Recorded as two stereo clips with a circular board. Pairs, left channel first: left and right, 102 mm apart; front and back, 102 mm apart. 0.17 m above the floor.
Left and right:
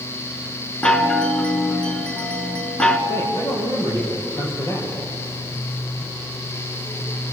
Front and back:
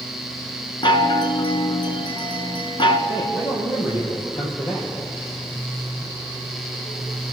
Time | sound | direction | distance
0.8 | a chime | 10° left | 1.3 m
3.1 | a man speaking | 30° left | 6.5 m